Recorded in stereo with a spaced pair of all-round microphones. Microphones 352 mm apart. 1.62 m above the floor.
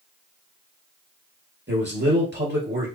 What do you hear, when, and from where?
1.7 s a man speaking: 30° right (ahead or behind), 2 m